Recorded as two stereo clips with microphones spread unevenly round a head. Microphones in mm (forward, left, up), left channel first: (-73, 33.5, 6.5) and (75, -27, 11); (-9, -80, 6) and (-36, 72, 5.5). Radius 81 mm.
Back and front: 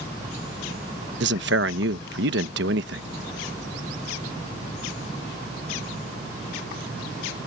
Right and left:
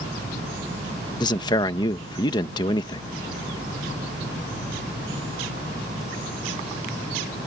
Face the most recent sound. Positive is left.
turn(degrees=-15)